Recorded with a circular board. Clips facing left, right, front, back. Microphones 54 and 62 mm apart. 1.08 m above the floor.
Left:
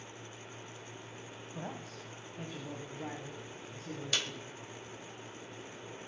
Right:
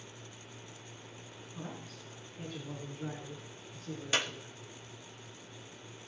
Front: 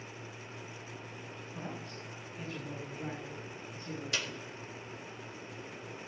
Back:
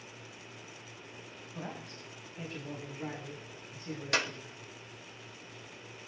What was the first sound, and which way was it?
A man speaking, 105° left.